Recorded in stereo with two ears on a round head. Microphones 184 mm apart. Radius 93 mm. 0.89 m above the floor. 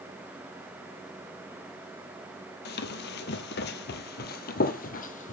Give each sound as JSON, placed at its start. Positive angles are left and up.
{"t": 2.6, "sound": "running footsteps", "side_deg": 50, "distance_m": 1.5}